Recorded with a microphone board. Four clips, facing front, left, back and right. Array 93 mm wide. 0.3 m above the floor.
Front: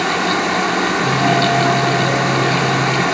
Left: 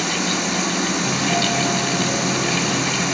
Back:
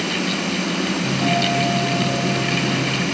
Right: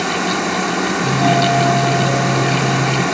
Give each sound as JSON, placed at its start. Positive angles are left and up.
{"t": 0.0, "sound": "running water", "azimuth_deg": -25, "distance_m": 5.0}
{"t": 1.0, "sound": "a doorbell", "azimuth_deg": -70, "distance_m": 4.5}